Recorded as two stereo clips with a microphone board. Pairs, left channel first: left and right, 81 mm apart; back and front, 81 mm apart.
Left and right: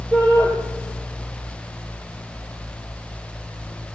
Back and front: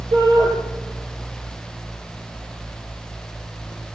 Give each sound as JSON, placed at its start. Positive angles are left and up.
{"t": 0.1, "sound": "a shout", "azimuth_deg": 5, "distance_m": 4.5}